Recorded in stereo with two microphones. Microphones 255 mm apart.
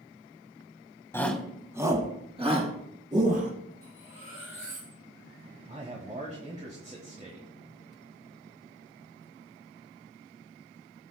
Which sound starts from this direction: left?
Cutlery clinking, at 3.8 s.